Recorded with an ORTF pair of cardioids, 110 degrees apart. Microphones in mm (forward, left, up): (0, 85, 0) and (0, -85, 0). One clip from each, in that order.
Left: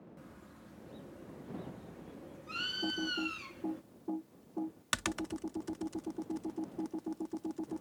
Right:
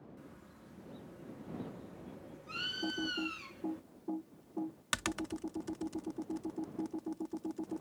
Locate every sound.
0.2 s a bird: 15° left
2.8 s typing on a keyboard: 10° left